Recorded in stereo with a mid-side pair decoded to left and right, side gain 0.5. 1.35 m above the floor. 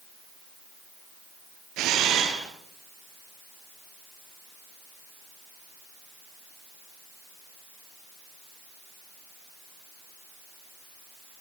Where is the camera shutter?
70° right, 7.5 m.